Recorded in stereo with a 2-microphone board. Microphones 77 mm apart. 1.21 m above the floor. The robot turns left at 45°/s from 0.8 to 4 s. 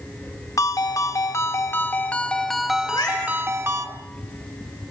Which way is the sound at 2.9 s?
55° left (ahead or behind).